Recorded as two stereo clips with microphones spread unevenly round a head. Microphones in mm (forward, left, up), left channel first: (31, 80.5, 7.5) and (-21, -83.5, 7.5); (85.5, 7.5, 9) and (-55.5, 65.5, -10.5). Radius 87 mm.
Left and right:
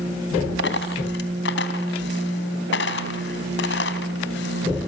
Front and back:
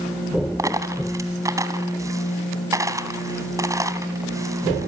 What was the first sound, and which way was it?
A dropped coin, 85° left.